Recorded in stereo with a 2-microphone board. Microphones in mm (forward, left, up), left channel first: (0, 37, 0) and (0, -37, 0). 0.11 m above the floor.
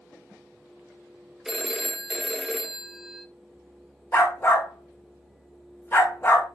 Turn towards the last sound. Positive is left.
turn(degrees=25)  # may be behind; listen again after turning